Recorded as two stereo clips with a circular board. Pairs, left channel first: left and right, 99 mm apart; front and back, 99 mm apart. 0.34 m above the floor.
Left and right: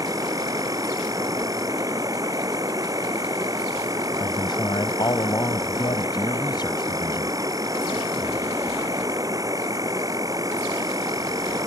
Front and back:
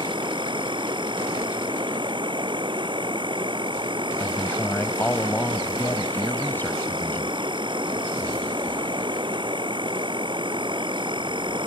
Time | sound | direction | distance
0.0 | an insect | 145° right | ?
4.2 | a man speaking | 65° left | ?